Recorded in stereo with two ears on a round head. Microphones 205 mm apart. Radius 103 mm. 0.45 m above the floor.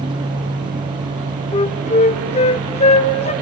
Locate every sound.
1.5 s a flute: 30° left (ahead or behind), 0.7 m